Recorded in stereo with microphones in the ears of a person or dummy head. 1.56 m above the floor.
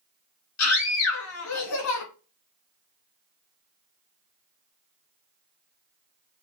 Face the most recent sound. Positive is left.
turn(degrees=90)